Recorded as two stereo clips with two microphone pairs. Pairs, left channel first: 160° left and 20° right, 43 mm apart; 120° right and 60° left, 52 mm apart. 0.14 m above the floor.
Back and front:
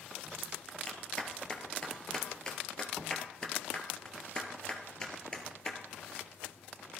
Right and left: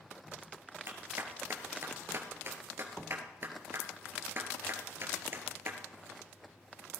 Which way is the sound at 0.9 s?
90° left.